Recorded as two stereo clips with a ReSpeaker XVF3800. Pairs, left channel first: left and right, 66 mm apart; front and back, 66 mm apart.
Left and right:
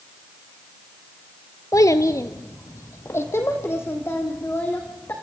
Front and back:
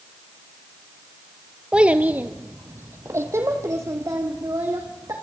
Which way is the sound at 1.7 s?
105° left.